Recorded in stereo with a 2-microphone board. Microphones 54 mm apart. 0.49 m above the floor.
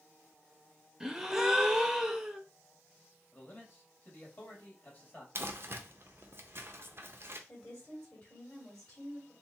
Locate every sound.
1.0 s a gasp: 10° right (ahead or behind), 0.6 m
3.3 s a man speaking: 35° left (ahead or behind), 1.9 m
5.3 s crumpling: 50° right (ahead or behind), 0.6 m
7.5 s a woman speaking: 20° left (ahead or behind), 2.5 m